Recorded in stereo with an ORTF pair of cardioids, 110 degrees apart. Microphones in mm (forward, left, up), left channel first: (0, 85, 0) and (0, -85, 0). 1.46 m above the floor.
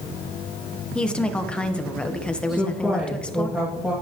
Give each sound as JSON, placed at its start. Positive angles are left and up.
{"t": 0.9, "sound": "a woman speaking", "azimuth_deg": 5, "distance_m": 1.2}
{"t": 2.5, "sound": "a woman speaking", "azimuth_deg": 0, "distance_m": 2.5}